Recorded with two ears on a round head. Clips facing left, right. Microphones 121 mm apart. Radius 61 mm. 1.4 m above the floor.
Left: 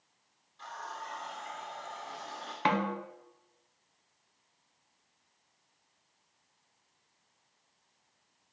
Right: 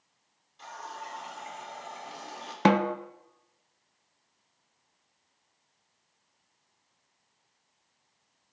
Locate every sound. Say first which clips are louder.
0.6 s a running tap: right 1 dB; 20° right (ahead or behind), 3 m
2.6 s a snare drum: right 7 dB; 50° right (ahead or behind), 0.8 m